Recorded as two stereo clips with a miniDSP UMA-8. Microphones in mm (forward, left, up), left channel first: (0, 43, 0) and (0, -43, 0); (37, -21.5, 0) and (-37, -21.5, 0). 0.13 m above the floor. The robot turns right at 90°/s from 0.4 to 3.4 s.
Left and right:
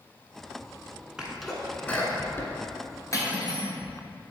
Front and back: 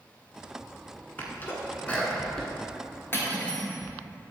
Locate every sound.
1.2 s a sneeze: 20° right, 1.1 m; by 3.9 s straight behind, 1.1 m
3.1 s cutlery clinking: 50° left, 1.3 m; by 3.7 s 75° left, 1.3 m